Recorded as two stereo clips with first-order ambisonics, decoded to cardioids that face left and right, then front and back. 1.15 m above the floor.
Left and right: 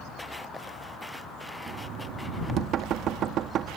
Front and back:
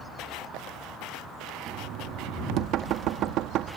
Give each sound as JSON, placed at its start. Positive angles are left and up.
{"t": 1.7, "sound": "knocking", "azimuth_deg": -135}